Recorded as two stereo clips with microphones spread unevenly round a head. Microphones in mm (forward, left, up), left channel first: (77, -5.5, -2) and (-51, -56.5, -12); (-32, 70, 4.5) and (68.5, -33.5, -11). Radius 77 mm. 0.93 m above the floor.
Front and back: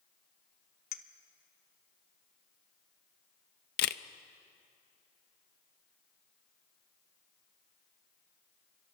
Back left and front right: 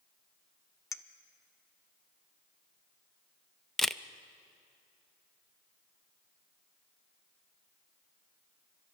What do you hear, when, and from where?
0.9 s a clink: 65° left, 0.9 m
3.8 s a camera shutter: 45° left, 0.6 m